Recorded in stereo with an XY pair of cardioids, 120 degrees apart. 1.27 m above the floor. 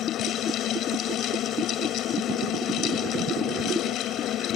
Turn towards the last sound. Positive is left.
turn(degrees=70)